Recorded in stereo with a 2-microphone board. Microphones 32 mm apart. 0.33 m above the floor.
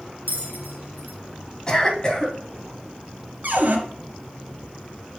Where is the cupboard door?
65° right (ahead or behind), 1.8 m.